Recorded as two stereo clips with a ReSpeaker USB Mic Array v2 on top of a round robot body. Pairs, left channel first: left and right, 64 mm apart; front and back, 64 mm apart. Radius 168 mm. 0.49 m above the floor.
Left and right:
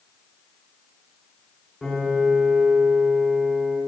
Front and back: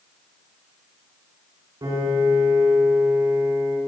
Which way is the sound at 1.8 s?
175° left.